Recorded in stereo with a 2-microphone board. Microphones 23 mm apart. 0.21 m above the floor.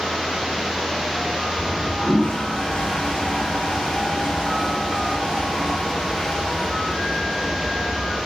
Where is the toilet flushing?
30° left (ahead or behind), 1.9 m.